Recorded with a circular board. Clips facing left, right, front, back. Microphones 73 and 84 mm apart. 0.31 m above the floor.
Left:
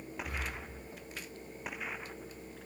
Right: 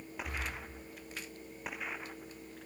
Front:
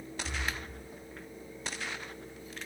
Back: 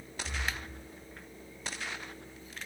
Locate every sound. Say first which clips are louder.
0.2 s breathing: right 1 dB, even; 70° right, 3 m